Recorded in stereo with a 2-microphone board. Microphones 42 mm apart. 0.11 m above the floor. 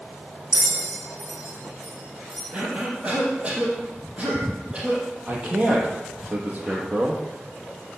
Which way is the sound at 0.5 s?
15° right (ahead or behind).